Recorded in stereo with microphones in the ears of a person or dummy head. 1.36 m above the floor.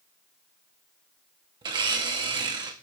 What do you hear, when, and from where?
1.6 s a blender: 25° right (ahead or behind), 0.9 m